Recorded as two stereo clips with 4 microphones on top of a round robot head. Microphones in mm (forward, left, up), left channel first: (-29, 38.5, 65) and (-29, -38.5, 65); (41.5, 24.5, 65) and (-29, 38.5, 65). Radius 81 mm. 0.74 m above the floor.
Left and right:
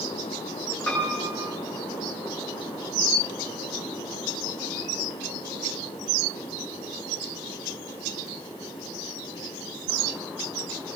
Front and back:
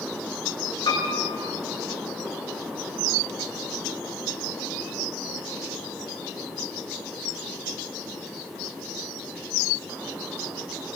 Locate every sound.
0.9 s a piano: 15° left, 9 m